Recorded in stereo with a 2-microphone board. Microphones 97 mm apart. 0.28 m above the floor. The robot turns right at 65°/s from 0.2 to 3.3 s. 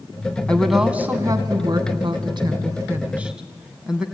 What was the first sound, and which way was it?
A woman speaking, 165° left.